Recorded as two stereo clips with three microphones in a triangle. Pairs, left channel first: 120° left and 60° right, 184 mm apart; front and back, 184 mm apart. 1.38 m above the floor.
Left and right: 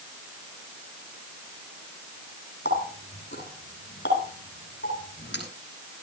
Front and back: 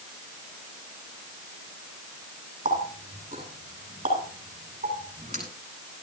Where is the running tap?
135° left, 8.5 m.